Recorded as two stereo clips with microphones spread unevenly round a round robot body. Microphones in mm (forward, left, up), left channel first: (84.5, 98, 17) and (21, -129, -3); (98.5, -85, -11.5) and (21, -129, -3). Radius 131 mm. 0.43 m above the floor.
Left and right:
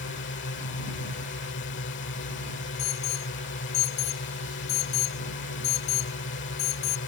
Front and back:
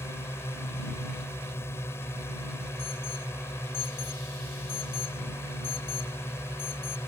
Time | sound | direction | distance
0.0 | a drone | 85° left | ?
2.8 | an alarm | 80° left | ?